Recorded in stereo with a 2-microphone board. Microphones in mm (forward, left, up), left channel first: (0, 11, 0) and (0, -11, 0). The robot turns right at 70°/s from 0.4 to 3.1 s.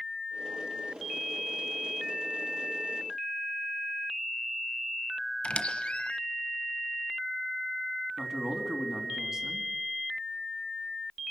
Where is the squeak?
55° left (ahead or behind), 1.0 m.